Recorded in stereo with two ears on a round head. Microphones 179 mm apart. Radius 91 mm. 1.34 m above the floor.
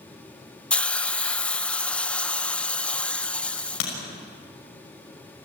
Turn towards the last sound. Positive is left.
turn(degrees=80)